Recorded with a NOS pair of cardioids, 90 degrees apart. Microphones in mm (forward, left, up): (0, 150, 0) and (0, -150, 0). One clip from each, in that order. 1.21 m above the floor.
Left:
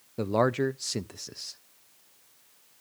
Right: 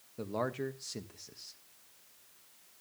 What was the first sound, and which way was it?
A man speaking, 50° left.